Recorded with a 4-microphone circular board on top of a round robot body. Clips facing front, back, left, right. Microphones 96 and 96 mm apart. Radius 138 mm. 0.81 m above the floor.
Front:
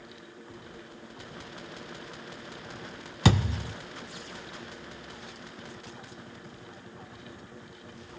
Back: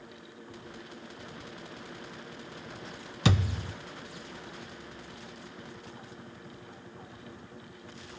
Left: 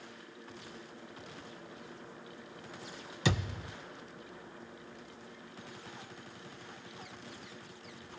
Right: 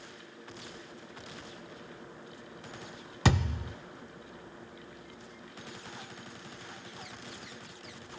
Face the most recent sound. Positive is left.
turn(degrees=-50)